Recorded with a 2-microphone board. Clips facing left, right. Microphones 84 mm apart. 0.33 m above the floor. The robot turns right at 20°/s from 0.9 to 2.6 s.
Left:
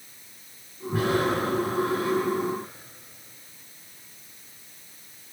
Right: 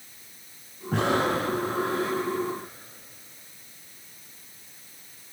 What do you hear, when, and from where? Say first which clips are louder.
0.9 s breathing: even; 80° right, 5.5 m; by 2.2 s 75° right (ahead or behind), 5.5 m